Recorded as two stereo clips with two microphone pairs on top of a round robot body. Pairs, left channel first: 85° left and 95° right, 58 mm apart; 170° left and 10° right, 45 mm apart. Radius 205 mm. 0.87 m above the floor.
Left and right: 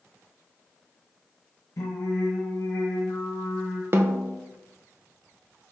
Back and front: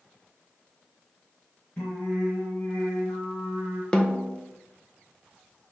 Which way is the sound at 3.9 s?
120° right.